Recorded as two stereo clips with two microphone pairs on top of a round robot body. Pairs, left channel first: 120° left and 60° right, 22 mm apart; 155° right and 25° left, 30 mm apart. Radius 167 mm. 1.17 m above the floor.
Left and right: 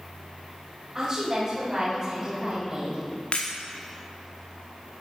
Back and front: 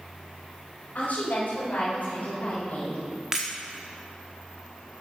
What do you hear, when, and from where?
0.9 s a woman speaking: 130° right, 5 m; by 3.1 s 120° right, 5 m
3.3 s breaking glass: 95° left, 1.0 m